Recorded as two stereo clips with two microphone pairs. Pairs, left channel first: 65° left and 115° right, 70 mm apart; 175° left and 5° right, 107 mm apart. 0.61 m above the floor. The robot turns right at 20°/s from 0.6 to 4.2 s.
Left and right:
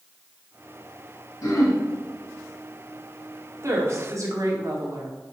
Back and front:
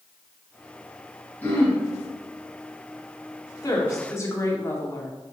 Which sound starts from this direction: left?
Throat clearing, at 1.4 s.